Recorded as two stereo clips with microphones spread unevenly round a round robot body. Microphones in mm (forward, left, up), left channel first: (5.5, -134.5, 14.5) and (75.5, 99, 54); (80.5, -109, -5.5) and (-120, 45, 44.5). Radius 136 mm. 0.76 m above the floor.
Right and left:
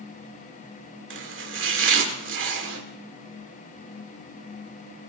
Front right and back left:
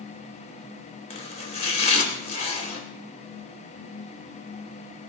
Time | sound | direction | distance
1.1 | chopping | 30° left | 3 m